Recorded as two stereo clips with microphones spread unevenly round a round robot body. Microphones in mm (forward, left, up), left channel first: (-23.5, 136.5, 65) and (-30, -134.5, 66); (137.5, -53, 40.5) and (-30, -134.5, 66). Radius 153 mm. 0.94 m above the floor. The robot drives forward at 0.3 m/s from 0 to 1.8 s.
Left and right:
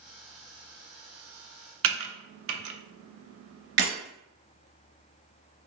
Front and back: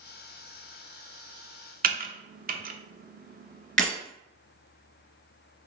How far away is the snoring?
I don't hear snoring.